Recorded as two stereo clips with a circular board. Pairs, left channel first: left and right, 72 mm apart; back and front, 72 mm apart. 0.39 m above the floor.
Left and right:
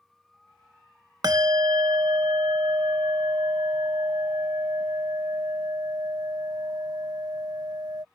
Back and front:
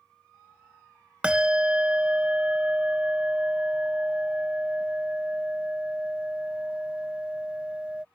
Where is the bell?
75° right.